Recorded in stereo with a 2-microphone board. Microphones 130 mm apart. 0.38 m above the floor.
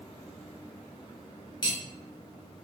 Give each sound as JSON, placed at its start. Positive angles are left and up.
{"t": 1.6, "sound": "cutlery clinking", "side_deg": 30, "distance_m": 0.5}